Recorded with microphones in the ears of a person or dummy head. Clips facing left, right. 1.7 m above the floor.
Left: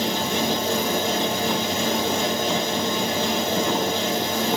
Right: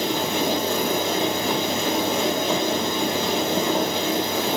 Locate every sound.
0.0 s a fan: 65° right (ahead or behind), 1.0 m